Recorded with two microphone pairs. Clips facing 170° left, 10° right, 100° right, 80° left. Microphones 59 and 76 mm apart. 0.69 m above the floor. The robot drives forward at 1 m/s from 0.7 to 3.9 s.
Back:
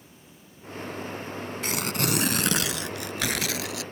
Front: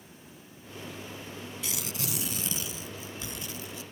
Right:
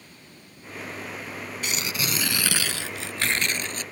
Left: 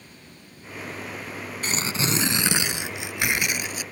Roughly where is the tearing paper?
Behind left.